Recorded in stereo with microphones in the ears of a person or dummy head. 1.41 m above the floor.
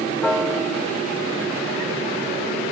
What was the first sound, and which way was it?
A piano, 5° left (ahead or behind).